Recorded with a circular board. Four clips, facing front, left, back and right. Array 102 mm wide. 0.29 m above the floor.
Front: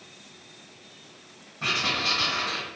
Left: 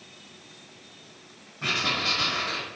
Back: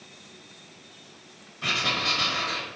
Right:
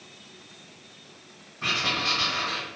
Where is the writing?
Straight ahead, 1.2 m.